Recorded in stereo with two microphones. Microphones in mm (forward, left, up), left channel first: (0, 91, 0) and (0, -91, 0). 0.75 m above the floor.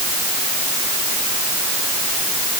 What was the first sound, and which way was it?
Only background noise.